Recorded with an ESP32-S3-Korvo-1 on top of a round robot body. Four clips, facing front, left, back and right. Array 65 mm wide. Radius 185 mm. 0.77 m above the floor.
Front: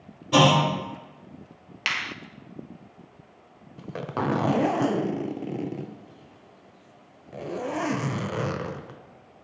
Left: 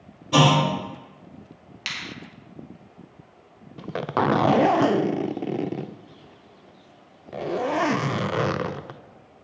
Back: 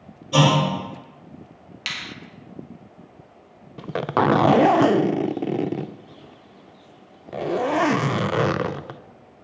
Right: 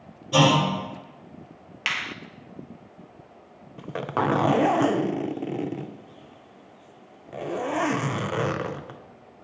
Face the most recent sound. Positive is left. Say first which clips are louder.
# left 2 dB, back 9 dB
turn(degrees=160)